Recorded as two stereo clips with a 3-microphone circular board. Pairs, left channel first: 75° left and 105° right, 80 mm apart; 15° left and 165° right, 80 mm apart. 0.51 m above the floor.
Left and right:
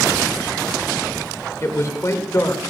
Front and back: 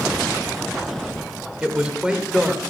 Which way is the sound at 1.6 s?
120° left.